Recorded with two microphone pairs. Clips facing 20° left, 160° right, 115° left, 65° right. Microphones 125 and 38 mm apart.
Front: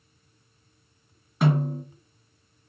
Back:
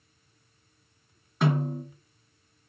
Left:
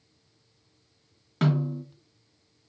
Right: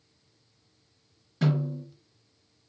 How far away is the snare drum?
About 1.8 m.